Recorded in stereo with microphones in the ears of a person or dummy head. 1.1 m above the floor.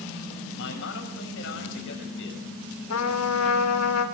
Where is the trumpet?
85° left, 2 m.